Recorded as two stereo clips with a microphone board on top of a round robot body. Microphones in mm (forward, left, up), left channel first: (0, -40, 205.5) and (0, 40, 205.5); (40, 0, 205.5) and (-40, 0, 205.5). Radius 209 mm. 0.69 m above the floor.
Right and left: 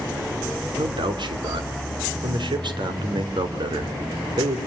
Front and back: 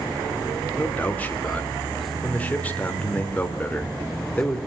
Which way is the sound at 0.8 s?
75° left.